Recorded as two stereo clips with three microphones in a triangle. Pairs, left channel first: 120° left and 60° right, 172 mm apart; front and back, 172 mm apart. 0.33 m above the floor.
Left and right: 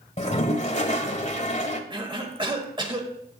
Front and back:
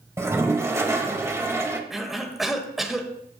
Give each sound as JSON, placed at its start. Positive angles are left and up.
{"t": 0.2, "sound": "a toilet flushing", "azimuth_deg": 115, "distance_m": 1.4}
{"t": 1.9, "sound": "a cough", "azimuth_deg": -95, "distance_m": 1.3}